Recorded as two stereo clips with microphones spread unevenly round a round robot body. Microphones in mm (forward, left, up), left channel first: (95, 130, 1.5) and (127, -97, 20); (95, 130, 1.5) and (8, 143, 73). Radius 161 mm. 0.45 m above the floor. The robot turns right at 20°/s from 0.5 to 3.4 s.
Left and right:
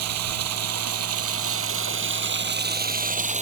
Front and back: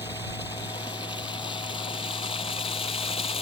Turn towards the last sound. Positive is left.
turn(degrees=-25)